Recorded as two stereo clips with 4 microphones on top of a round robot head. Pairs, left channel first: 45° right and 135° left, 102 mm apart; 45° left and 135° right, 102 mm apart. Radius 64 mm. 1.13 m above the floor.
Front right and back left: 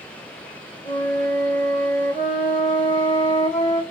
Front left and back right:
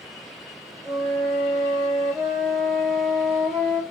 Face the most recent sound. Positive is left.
turn(degrees=-50)